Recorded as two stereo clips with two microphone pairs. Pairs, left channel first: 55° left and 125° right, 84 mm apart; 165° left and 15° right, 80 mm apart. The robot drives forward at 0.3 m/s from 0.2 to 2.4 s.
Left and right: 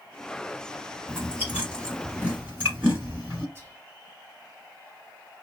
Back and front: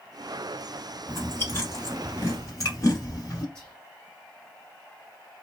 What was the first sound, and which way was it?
Chewing, straight behind.